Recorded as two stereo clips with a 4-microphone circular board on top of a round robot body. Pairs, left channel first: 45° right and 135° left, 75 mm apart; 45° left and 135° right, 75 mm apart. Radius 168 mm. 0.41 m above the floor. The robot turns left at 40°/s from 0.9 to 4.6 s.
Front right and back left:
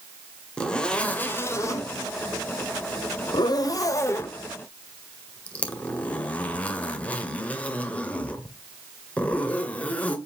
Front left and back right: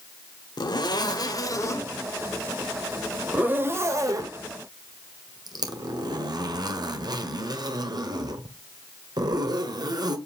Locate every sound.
0.6 s a zipper: 30° left, 1.9 m; by 10.2 s 115° right, 1.9 m